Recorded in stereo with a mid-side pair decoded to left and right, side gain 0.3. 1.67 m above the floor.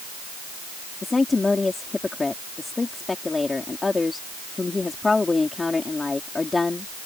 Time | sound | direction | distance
1.0 | a woman speaking | 35° left | ?